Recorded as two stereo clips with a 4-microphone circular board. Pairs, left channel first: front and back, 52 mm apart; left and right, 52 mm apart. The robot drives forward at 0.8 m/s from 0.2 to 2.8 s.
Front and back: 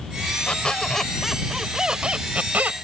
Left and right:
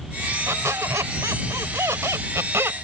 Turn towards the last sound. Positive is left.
turn(degrees=-125)